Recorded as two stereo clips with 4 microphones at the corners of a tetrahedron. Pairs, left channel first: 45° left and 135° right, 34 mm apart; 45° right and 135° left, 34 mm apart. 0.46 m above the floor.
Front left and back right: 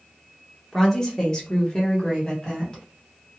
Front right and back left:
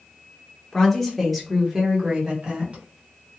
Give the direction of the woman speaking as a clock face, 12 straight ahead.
12 o'clock.